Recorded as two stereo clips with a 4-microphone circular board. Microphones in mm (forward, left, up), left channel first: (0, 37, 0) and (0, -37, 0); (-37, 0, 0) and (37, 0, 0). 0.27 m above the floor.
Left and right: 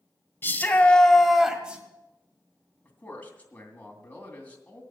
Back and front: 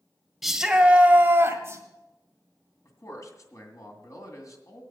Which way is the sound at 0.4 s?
85° left.